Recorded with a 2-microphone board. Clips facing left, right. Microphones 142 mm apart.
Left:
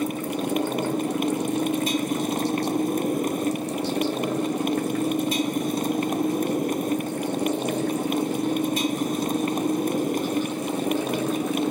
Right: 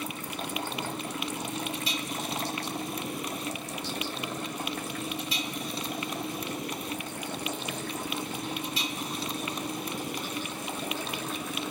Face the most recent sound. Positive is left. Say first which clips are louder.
# left 11 dB
turn(degrees=50)  # may be behind; listen again after turning